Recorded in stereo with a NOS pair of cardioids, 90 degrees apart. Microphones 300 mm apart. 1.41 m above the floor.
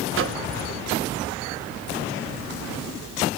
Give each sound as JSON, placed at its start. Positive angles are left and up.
{"t": 0.1, "sound": "a microwave", "azimuth_deg": -45, "distance_m": 0.7}